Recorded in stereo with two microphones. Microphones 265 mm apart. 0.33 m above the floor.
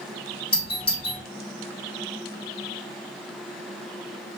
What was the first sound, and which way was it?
A doorbell, 20° left (ahead or behind).